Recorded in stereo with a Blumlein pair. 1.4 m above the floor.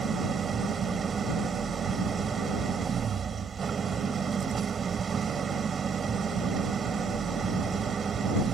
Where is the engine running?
20° right.